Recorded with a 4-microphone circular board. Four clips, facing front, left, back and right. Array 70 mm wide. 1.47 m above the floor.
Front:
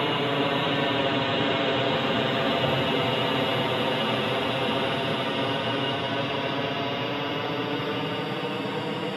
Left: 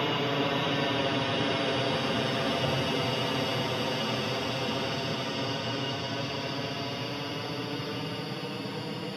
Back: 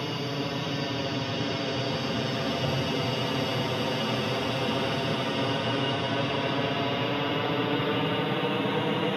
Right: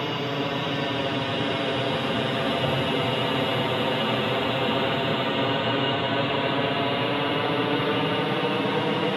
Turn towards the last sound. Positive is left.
turn(degrees=-105)